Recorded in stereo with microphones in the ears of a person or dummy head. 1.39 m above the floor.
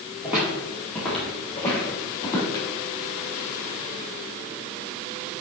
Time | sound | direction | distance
0.2 | footsteps | 5° right (ahead or behind) | 2.5 m